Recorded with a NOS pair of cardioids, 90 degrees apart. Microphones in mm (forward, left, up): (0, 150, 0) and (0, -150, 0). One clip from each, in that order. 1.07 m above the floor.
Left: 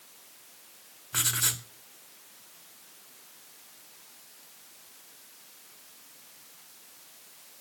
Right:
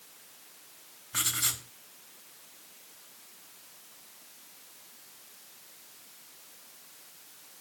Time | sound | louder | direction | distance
1.1 | writing | left 2 dB | 45° left | 3.5 m